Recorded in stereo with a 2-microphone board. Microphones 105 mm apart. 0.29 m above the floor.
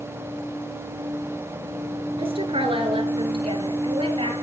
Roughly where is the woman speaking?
Right.